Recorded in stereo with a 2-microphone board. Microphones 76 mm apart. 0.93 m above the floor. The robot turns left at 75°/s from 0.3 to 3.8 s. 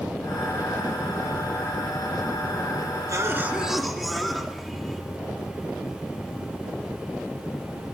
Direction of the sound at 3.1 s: 125° right.